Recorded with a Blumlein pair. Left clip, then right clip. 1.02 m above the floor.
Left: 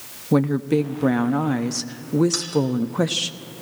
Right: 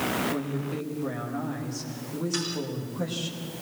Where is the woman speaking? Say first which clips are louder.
Left 11 dB; 55° left, 1.3 m.